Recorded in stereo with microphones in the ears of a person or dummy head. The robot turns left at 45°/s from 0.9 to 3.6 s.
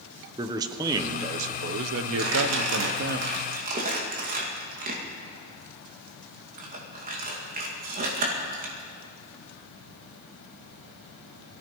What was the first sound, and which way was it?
A man speaking, 20° right.